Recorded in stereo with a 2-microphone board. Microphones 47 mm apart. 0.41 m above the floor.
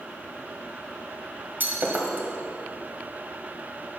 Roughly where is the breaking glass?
Right.